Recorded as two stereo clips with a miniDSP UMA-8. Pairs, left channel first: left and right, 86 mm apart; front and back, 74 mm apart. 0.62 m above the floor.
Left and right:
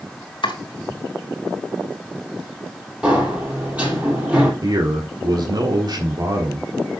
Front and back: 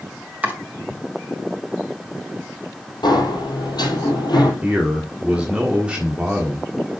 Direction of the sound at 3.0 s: 15° right.